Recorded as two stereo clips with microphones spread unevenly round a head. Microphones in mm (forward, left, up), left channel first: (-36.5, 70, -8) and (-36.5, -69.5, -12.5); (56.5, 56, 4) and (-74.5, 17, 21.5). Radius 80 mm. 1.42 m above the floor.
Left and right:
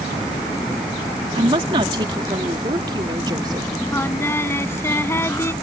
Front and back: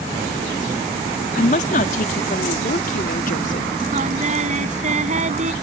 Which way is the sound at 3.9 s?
165° left.